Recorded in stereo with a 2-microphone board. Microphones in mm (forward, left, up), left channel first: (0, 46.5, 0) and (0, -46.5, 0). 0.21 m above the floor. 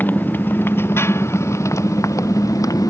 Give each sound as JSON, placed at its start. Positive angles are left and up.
{"t": 0.0, "sound": "a motorcycle", "side_deg": 20}